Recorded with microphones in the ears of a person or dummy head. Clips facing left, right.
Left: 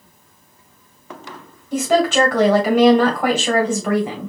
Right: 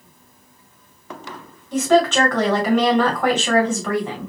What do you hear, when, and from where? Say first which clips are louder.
1.7 s a woman speaking: even; 5° left (ahead or behind), 1.7 m